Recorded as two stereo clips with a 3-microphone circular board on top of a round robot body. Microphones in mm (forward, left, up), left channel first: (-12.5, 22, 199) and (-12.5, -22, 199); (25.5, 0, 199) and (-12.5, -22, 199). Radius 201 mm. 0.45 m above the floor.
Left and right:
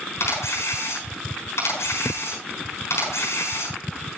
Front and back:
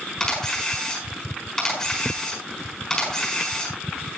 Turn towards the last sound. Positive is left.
turn(degrees=110)